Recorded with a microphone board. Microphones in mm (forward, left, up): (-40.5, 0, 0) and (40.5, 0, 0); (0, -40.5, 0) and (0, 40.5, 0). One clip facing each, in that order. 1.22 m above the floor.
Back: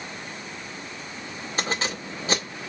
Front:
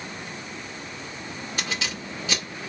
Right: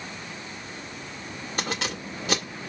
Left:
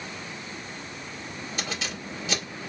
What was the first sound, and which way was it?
Keys jangling, 125° right.